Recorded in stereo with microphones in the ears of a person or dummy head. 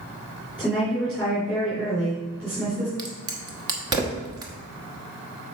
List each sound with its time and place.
0.6 s a woman speaking: 10° right (ahead or behind), 4 m
3.0 s a crack: 25° right (ahead or behind), 1.2 m